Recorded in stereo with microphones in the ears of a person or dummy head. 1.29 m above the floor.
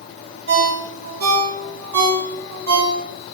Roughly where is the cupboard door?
No cupboard door in this recording.